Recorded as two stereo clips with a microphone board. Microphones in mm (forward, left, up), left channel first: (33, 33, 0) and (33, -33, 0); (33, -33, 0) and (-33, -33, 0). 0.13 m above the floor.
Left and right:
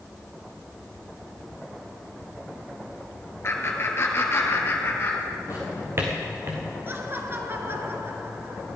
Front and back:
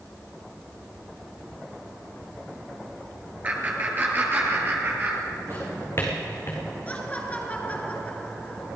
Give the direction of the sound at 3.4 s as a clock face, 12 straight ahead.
8 o'clock.